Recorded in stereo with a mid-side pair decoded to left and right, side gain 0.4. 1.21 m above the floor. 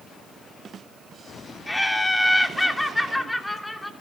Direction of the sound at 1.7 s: 10° left.